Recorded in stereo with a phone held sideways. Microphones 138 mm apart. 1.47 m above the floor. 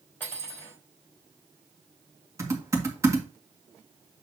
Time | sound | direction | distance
0.2 | cutlery clinking | 15° left (ahead or behind) | 3.5 m
2.4 | typing on a keyboard | 25° right (ahead or behind) | 1.9 m